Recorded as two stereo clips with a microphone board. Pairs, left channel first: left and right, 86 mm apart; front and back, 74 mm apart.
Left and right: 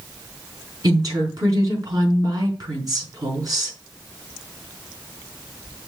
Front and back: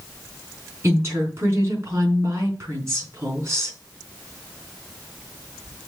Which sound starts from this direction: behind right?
A woman speaking, at 0.8 s.